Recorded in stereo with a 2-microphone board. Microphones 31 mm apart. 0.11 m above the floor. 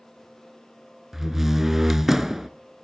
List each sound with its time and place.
1.1 s a door slam: 10° right (ahead or behind), 0.8 m